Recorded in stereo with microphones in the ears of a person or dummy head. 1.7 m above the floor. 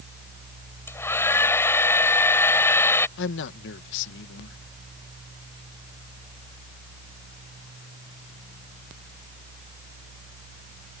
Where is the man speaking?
65° left (ahead or behind).